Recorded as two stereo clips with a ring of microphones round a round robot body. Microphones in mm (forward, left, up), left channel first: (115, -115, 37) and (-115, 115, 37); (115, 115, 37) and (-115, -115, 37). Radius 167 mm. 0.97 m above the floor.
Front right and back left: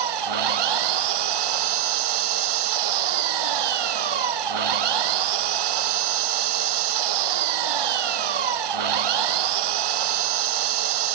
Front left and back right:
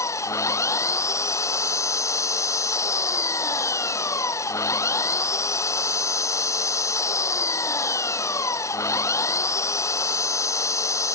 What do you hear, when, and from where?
0.0 s an engine running: 125° left